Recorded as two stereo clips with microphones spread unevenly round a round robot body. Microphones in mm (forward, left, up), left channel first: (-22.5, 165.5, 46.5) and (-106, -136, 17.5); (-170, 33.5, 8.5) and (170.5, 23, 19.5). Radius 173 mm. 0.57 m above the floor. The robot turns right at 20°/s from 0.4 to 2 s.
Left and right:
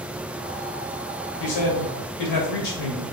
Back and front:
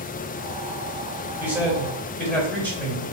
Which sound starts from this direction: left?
A man speaking, at 1.4 s.